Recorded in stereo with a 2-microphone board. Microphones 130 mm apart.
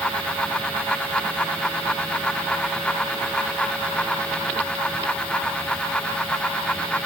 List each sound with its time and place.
Only background noise.